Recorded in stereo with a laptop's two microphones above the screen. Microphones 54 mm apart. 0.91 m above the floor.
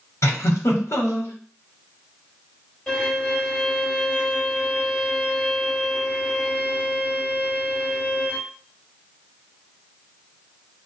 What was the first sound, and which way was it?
A giggle, 60° left (ahead or behind).